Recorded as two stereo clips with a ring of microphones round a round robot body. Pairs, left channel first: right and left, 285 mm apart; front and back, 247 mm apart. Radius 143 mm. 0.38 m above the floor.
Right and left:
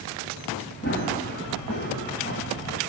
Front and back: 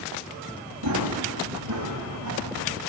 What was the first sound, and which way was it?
Running footsteps, 145° right.